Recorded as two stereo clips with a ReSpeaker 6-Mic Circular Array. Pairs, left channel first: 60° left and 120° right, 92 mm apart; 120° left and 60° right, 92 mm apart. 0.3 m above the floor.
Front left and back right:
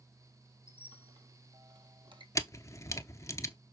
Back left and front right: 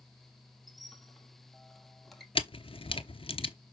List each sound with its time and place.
0.7 s a squeak: 150° right, 1.4 m
2.4 s a camera shutter: 115° left, 0.9 m